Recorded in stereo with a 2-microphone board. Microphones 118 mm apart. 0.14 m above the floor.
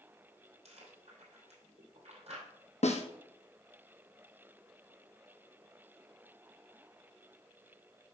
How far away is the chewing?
About 2.5 m.